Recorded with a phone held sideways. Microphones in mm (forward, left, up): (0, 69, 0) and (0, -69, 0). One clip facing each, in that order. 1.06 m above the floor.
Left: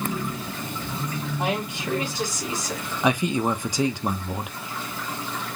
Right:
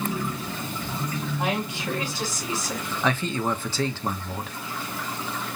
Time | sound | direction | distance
1.4 | a woman speaking | 20° left (ahead or behind) | 4 m
3.0 | a man speaking | 15° left (ahead or behind) | 0.9 m